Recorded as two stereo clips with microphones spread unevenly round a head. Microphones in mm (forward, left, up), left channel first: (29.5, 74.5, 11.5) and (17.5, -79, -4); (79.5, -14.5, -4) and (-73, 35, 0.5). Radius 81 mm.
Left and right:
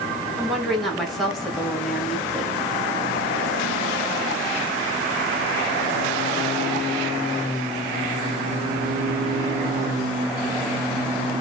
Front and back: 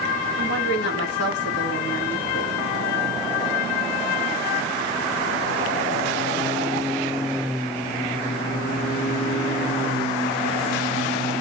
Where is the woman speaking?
5° right, 1.7 m.